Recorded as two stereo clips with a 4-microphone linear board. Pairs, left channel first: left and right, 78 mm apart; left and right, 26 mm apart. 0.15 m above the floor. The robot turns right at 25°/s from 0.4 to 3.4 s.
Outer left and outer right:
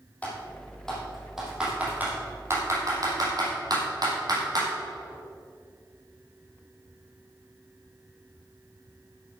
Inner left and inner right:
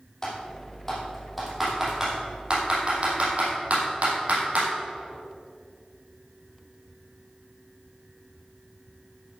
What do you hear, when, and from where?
0.2 s typing on a keyboard: 15° left (ahead or behind), 4 m; by 4.7 s 55° right (ahead or behind), 4 m